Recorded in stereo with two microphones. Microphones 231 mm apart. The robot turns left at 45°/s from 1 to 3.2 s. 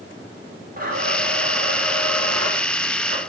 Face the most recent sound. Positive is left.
turn(degrees=-135)